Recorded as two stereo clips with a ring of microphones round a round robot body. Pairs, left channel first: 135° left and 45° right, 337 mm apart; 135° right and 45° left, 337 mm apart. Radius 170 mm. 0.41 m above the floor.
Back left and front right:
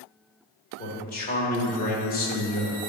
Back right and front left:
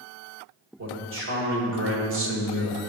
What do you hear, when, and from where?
0.8 s a man speaking: 80° left, 1.8 m